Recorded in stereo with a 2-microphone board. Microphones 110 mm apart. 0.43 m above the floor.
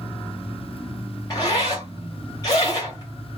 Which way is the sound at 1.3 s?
30° left (ahead or behind).